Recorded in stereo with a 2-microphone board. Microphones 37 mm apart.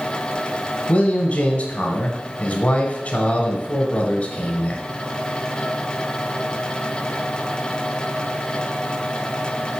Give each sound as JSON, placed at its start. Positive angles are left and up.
{"t": 0.9, "sound": "a man speaking", "side_deg": 40, "distance_m": 1.6}